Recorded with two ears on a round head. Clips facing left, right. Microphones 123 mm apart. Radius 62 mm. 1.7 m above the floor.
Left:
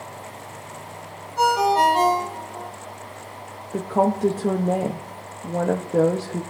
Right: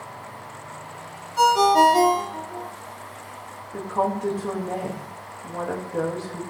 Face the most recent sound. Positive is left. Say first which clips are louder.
# left 4 dB
turn(degrees=40)  # may be behind; listen again after turning